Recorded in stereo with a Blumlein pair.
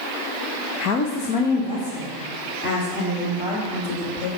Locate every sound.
0.8 s a woman speaking: 40° left, 0.7 m